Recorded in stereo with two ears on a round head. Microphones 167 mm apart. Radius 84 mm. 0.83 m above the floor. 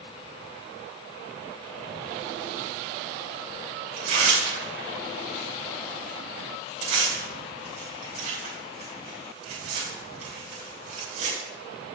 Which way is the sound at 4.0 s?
45° right (ahead or behind).